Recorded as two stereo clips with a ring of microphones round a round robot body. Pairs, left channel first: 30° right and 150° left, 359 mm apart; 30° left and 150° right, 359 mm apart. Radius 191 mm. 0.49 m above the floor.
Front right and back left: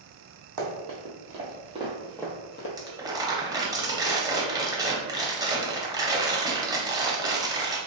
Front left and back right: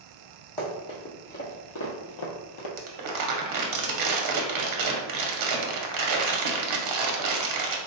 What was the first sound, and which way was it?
Running footsteps, 110° left.